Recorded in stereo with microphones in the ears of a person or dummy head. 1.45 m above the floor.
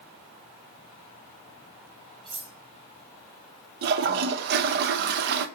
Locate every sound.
2.2 s cutlery clinking: 25° right (ahead or behind), 3.5 m
3.8 s a toilet flushing: 55° right (ahead or behind), 0.7 m